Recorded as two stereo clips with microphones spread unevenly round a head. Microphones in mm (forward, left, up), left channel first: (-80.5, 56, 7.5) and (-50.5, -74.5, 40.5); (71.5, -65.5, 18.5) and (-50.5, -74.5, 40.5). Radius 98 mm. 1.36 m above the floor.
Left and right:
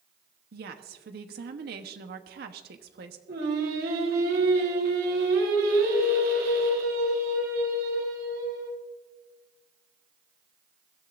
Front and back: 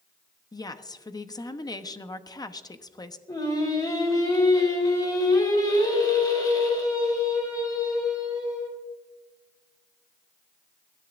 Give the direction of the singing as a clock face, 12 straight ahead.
2 o'clock.